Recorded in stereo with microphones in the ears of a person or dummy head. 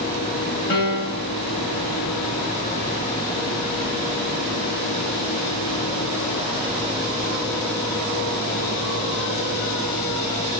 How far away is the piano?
About 1.5 m.